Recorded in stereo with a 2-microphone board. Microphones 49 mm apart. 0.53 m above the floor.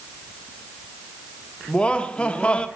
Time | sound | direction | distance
1.7 | laughter | 20° left (ahead or behind) | 1.2 m